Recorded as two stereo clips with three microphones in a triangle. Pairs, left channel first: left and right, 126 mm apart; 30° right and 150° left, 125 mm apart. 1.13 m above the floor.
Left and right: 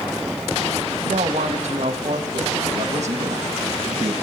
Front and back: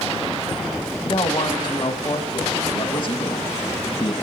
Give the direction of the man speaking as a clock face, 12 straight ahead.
2 o'clock.